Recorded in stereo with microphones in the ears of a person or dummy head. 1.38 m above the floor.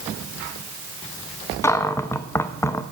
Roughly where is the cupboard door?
Centre.